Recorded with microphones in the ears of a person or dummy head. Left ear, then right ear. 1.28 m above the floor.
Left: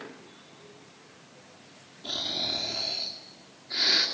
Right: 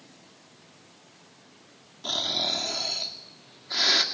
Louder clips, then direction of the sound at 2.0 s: Right 4 dB; 40° right (ahead or behind).